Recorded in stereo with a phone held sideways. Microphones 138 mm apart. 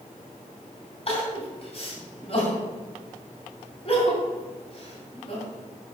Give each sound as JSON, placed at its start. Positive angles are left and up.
{"t": 1.1, "sound": "crying", "side_deg": 40, "distance_m": 2.0}